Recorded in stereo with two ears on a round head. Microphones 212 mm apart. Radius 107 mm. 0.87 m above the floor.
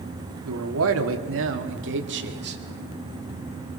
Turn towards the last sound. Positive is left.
turn(degrees=-50)  # may be behind; listen again after turning